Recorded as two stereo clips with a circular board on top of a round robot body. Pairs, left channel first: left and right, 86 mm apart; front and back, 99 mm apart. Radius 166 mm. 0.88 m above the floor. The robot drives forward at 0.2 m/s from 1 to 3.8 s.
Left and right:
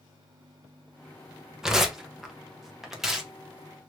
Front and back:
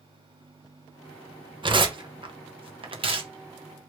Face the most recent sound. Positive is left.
turn(degrees=-175)